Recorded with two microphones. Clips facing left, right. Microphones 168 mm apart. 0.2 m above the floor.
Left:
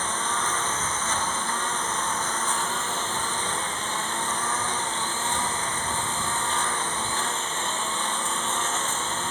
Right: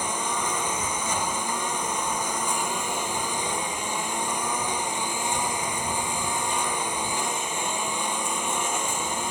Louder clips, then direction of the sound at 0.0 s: Right 1 dB; 10° right (ahead or behind).